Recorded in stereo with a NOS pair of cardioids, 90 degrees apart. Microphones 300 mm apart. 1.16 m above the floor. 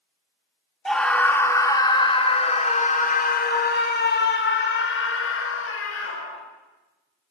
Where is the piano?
I don't hear a piano.